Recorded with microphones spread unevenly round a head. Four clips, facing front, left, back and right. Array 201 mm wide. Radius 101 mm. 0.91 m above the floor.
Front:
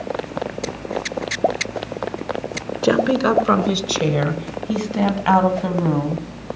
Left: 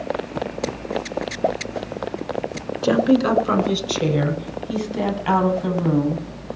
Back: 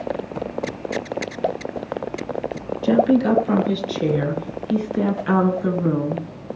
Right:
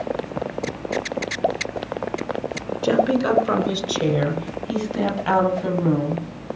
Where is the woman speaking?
5° left, 3 m; by 6.5 s 10° right, 5.5 m.